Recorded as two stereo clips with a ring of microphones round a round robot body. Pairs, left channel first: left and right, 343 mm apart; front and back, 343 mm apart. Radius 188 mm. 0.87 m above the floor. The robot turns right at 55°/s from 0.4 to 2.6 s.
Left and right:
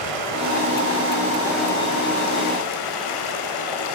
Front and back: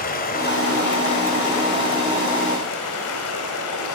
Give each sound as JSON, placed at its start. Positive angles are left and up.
{"t": 0.0, "sound": "running water", "azimuth_deg": -65, "distance_m": 2.0}